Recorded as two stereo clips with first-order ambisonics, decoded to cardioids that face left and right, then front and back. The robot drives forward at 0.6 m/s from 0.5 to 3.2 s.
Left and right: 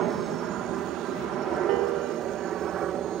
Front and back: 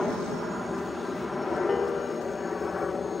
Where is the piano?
75° right; by 3.1 s 90° right.